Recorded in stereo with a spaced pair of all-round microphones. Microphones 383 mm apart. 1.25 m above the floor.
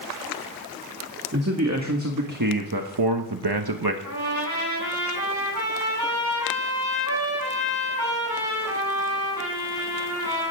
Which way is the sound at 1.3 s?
40° right (ahead or behind).